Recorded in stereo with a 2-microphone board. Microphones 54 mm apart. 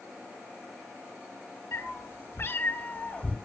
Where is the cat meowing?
60° left (ahead or behind), 2 m; by 3.4 s 25° left (ahead or behind), 1.4 m.